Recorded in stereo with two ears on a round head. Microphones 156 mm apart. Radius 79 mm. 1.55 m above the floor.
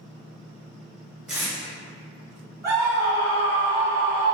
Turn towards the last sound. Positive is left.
turn(degrees=-20)  # may be behind; listen again after turning